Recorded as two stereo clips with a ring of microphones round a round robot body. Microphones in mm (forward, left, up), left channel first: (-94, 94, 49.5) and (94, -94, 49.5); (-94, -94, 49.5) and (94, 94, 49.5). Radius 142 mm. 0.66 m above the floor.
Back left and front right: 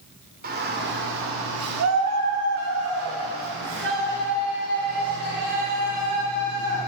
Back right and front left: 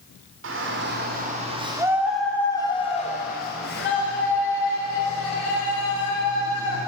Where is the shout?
10° left, 3 m; by 6.8 s 110° right, 7 m.